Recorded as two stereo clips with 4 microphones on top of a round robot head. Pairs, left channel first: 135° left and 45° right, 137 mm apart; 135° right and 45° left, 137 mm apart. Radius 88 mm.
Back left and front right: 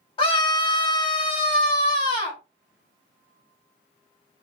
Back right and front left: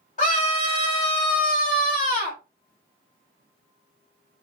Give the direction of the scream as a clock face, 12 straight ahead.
6 o'clock.